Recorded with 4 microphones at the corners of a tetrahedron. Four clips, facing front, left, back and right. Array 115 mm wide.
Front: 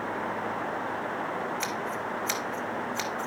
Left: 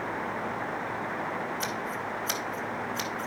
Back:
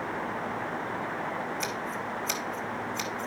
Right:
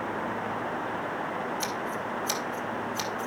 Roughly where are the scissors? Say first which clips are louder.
Right 1 dB, front 1 dB; ahead.